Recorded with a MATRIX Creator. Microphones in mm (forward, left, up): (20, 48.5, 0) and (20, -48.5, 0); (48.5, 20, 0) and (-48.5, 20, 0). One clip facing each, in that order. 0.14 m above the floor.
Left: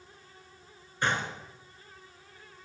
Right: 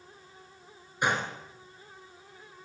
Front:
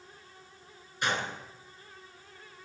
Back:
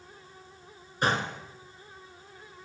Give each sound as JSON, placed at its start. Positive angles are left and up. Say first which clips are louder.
{"t": 1.0, "sound": "a gunshot", "louder": "right 1 dB, back 4 dB", "azimuth_deg": -160, "distance_m": 1.7}